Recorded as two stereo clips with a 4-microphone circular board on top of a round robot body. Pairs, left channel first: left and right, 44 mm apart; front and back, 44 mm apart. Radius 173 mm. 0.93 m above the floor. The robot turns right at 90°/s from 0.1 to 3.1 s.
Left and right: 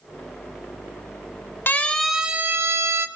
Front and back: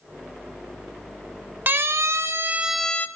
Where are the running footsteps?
I don't hear running footsteps.